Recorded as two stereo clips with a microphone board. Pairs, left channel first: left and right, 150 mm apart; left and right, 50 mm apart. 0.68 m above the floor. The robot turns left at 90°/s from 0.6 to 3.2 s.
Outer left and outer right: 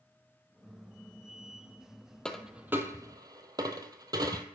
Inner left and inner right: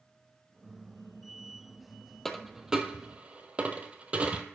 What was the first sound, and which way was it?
A dropped coin, 5° left (ahead or behind).